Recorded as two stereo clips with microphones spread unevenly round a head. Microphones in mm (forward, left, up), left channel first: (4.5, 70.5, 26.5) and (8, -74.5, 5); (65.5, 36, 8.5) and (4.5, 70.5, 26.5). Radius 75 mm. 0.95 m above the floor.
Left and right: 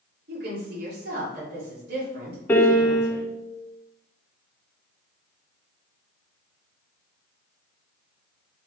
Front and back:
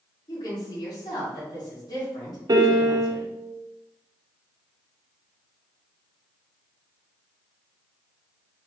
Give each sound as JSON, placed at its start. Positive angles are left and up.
{"t": 0.3, "sound": "a woman speaking", "azimuth_deg": -75, "distance_m": 2.0}
{"t": 2.5, "sound": "a piano", "azimuth_deg": 170, "distance_m": 0.7}